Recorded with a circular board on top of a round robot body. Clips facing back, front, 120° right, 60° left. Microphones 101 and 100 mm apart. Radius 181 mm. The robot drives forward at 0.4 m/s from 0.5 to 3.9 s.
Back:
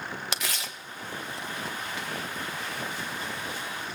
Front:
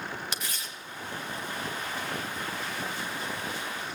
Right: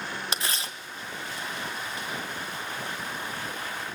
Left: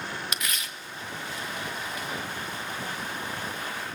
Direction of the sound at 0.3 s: Straight behind.